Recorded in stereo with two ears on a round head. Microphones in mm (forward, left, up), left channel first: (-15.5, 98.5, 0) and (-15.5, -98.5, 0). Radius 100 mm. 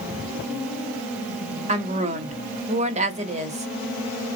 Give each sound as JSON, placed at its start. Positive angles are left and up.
{"t": 1.7, "sound": "a woman speaking", "side_deg": -30, "distance_m": 1.2}